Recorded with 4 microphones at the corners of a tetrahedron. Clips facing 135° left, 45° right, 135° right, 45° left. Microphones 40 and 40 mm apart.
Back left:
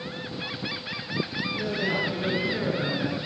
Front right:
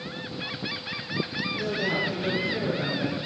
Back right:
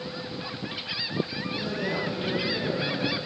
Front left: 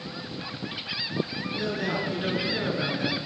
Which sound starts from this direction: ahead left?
A man speaking, at 1.6 s.